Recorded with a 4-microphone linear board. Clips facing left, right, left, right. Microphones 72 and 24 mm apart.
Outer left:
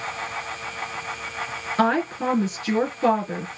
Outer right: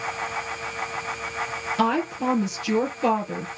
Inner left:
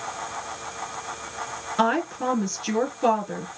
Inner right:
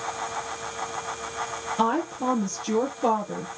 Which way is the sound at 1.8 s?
45° left (ahead or behind).